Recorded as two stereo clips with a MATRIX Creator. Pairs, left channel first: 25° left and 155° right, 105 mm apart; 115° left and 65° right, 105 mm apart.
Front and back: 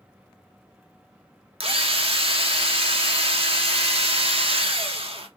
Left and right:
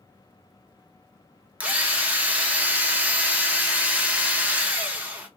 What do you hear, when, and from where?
1.6 s a drill: 145° right, 0.9 m